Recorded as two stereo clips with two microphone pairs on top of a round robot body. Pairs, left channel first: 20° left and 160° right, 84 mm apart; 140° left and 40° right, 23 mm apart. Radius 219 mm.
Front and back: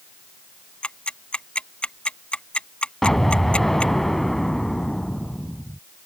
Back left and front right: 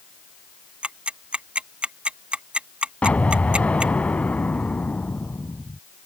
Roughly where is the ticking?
Ahead right.